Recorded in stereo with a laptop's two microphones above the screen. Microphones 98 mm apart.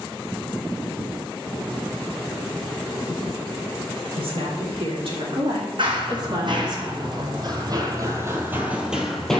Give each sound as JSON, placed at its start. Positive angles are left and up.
{"t": 4.2, "sound": "a woman speaking", "side_deg": -70, "distance_m": 3.0}
{"t": 5.8, "sound": "running footsteps", "side_deg": -55, "distance_m": 2.5}